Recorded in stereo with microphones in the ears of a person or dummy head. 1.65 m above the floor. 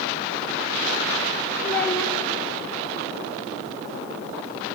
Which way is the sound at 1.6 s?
15° left (ahead or behind).